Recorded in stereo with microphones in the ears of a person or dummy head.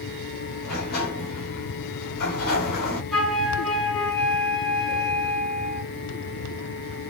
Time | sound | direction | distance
0.6 | a sliding door | 55° left (ahead or behind) | 1.1 m
3.1 | a flute | 5° left (ahead or behind) | 2 m